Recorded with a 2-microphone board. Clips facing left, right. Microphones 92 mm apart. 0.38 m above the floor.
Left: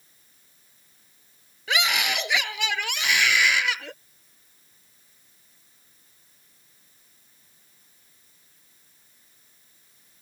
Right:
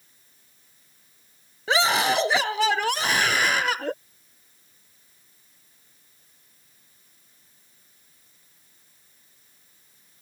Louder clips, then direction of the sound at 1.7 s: Right 5 dB; 35° right (ahead or behind).